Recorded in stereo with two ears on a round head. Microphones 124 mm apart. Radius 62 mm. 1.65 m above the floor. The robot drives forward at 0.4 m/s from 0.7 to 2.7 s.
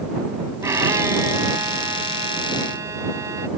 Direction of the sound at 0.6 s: 20° right (ahead or behind).